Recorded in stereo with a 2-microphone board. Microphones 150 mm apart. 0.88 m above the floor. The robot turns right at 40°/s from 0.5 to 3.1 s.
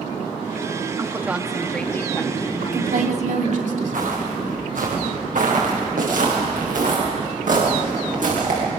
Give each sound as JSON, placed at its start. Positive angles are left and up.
{"t": 1.0, "sound": "a woman speaking", "azimuth_deg": -25, "distance_m": 1.8}
{"t": 2.6, "sound": "a woman speaking", "side_deg": -75, "distance_m": 2.5}
{"t": 3.9, "sound": "footsteps", "side_deg": -70, "distance_m": 9.0}